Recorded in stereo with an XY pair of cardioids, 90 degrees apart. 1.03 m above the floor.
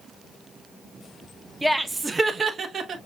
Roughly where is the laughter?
Ahead.